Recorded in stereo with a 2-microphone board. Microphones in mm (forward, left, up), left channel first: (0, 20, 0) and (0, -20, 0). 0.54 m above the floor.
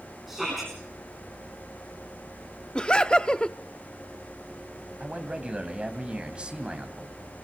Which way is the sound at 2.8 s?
25° left (ahead or behind).